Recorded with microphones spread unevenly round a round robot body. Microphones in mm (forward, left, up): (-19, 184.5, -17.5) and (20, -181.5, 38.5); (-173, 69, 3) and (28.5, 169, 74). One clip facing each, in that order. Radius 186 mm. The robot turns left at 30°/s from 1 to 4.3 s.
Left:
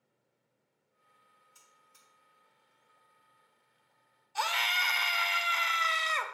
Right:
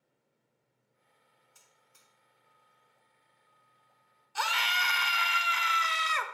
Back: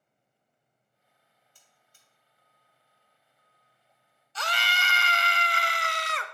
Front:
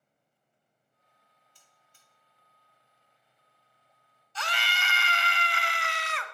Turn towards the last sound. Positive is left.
turn(degrees=-155)